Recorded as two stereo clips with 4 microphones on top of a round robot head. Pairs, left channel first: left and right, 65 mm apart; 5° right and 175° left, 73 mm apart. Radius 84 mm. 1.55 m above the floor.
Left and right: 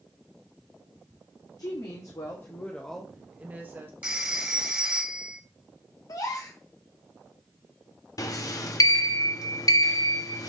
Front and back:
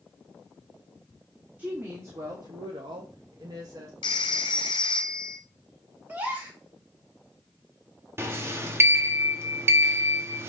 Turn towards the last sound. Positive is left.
turn(degrees=120)